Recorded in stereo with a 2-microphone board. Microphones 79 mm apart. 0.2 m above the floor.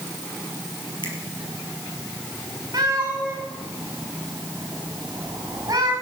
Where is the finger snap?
70° left (ahead or behind), 3.5 m.